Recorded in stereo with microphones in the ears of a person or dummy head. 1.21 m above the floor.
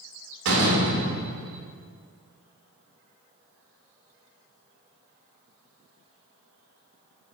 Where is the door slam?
80° right, 2.5 m.